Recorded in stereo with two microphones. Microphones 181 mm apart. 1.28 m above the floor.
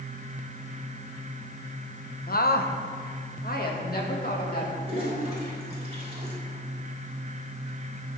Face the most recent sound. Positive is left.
turn(degrees=-35)  # may be behind; listen again after turning